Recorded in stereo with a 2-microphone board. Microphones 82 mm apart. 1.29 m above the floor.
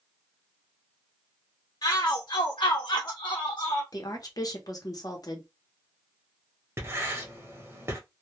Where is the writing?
35° right (ahead or behind), 0.8 m.